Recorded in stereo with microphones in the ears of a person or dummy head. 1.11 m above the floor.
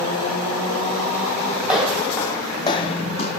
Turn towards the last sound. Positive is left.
turn(degrees=45)  # may be behind; listen again after turning